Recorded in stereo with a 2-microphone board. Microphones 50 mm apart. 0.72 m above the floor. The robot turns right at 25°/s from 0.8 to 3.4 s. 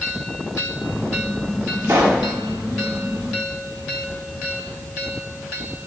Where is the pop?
70° right (ahead or behind), 1.3 m; by 2.3 s 65° right (ahead or behind), 1.3 m.